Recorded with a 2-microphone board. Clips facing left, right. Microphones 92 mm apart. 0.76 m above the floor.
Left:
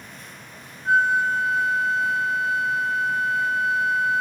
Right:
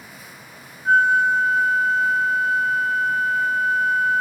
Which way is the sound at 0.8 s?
45° right (ahead or behind).